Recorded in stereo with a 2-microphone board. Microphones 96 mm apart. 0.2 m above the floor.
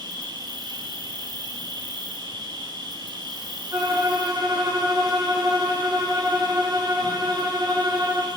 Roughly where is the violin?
Right.